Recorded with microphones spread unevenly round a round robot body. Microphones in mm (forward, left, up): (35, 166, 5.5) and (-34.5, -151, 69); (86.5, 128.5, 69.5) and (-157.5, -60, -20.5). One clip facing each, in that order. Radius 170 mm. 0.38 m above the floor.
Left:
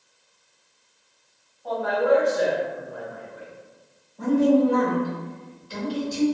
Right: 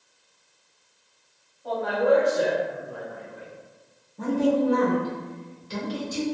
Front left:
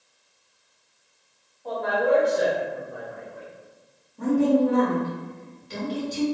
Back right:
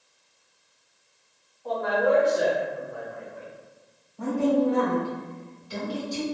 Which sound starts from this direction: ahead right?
A woman speaking, at 4.2 s.